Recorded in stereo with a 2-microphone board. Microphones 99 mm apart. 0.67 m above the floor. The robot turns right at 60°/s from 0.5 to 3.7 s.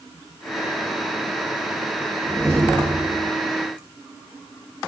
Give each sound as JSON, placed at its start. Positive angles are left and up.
{"t": 2.2, "sound": "a door slam", "azimuth_deg": -175, "distance_m": 9.0}